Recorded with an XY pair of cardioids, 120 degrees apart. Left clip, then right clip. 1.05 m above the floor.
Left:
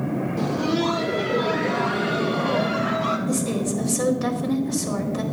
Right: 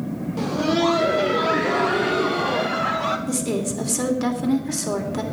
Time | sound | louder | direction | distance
0.4 | laughter | right 4 dB | 25° right | 1.2 m
3.3 | a woman speaking | even | 40° right | 3 m